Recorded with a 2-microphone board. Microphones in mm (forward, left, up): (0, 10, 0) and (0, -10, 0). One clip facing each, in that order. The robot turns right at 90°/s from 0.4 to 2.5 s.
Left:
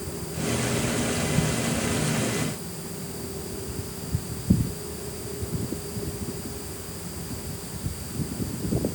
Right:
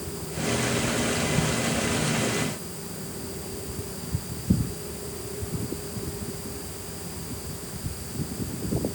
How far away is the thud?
No thud in this recording.